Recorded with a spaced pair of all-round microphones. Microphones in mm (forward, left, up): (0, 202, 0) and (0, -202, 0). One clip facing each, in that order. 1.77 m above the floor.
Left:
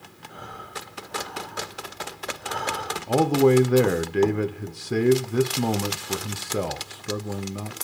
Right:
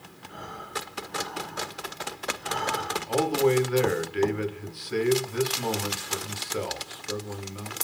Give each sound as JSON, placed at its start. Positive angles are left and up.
{"t": 0.3, "sound": "breathing", "side_deg": -40, "distance_m": 5.0}
{"t": 3.1, "sound": "a man speaking", "side_deg": 65, "distance_m": 0.8}